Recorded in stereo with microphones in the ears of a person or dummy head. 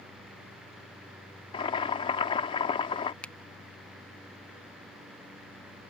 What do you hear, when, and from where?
1.5 s boiling: 25° left (ahead or behind)
3.2 s a finger snap: 5° left (ahead or behind)